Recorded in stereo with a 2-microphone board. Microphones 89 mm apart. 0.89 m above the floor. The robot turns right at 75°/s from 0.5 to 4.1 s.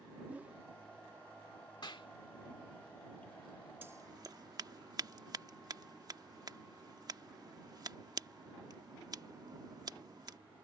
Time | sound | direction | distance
0.2 | a whoosh | 15° right (ahead or behind) | ?
1.8 | a clap | 55° left (ahead or behind) | ?
3.8 | scissors | 25° right (ahead or behind) | ?